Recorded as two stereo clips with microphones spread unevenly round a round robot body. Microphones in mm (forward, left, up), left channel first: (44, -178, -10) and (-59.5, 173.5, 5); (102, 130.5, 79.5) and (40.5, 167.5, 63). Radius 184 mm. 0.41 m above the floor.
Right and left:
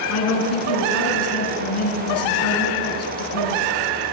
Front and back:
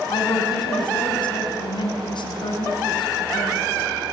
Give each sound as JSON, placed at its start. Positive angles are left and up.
{"t": 0.1, "sound": "a woman speaking", "azimuth_deg": -20, "distance_m": 4.5}